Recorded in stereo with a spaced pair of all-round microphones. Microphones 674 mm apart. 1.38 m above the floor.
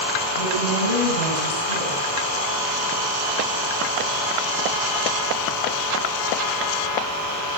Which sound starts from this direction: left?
A woman speaking, at 0.4 s.